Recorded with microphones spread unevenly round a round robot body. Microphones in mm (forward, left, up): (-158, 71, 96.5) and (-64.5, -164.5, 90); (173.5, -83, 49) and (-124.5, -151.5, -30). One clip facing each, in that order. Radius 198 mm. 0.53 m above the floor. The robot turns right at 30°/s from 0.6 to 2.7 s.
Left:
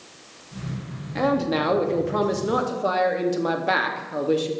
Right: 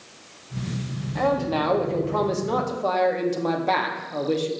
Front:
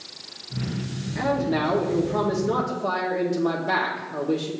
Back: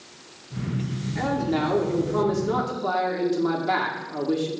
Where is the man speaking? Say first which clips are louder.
Left 2 dB, front 1 dB; 130° left, 0.9 m; by 4.5 s straight behind, 0.9 m.